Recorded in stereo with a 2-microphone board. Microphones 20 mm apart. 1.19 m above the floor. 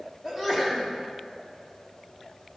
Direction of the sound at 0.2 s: 25° right (ahead or behind).